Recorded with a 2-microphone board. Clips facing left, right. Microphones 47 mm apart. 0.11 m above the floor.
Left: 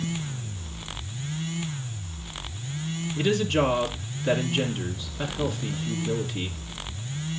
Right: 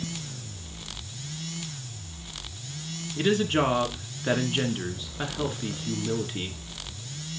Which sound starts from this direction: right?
A woman speaking, at 3.2 s.